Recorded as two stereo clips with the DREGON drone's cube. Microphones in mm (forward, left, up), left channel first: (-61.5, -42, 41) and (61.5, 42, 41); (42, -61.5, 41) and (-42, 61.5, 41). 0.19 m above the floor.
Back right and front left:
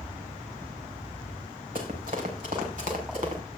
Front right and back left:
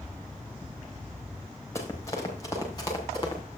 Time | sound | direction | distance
1.8 | running footsteps | 15° left | 5 m